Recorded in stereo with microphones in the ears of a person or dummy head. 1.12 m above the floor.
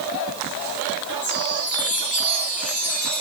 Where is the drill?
I don't hear a drill.